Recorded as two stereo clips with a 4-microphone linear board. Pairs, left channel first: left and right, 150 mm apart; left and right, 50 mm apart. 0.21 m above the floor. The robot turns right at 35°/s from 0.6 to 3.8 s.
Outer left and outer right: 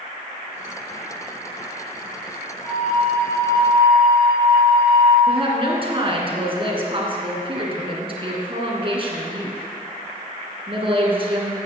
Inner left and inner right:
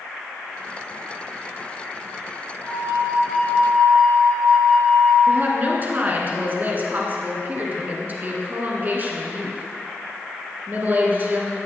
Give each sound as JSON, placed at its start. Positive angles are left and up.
{"t": 2.6, "sound": "a flute", "azimuth_deg": -55, "distance_m": 4.0}
{"t": 5.3, "sound": "a woman speaking", "side_deg": -35, "distance_m": 2.5}